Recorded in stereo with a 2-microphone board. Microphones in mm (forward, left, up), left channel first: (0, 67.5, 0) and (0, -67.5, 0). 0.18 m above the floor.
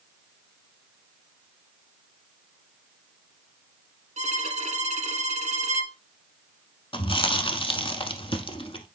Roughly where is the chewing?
Left.